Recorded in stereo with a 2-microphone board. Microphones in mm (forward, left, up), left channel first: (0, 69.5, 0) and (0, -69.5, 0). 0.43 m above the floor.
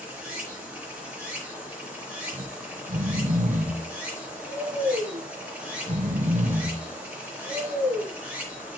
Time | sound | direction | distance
0.0 | running water | 10° right (ahead or behind) | 3 m
2.3 | snoring | 60° right (ahead or behind) | 1.0 m